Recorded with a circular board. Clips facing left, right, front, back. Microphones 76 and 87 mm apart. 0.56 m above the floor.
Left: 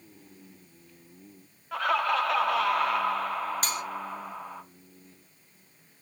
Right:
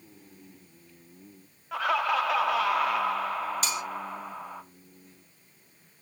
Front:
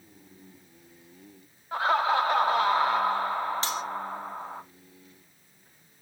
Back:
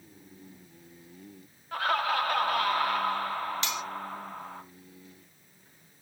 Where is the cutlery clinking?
50° left, 0.9 m.